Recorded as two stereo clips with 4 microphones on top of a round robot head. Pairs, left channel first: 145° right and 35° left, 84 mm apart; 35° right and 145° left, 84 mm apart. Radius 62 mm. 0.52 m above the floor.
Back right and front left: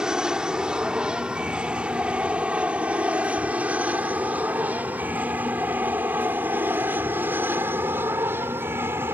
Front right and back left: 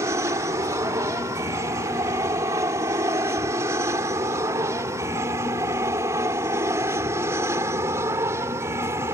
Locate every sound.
0.0 s an aircraft: 115° left; by 9.1 s 95° left